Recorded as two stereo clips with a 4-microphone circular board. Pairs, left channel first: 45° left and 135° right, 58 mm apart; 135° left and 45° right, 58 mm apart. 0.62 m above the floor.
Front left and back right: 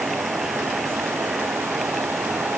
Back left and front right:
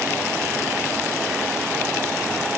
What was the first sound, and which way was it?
Only background noise.